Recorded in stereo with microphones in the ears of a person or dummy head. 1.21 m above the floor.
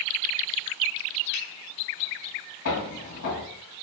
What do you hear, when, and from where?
1.3 s a finger snap: 85° left, 1.6 m
2.6 s footsteps: 65° left (ahead or behind), 2.5 m